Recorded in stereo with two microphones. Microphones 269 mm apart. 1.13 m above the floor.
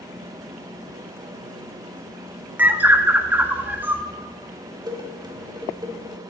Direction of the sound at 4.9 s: 15° right (ahead or behind).